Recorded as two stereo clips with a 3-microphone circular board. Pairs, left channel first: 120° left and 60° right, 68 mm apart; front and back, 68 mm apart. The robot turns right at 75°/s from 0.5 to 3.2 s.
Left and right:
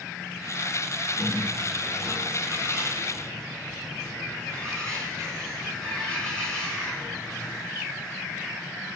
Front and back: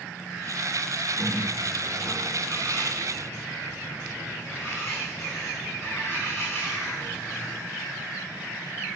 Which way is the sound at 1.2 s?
105° right.